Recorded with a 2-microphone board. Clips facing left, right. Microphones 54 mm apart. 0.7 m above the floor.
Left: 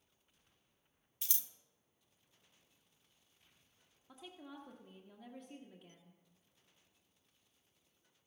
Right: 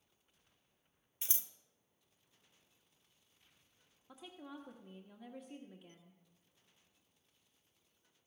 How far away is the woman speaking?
About 1.3 m.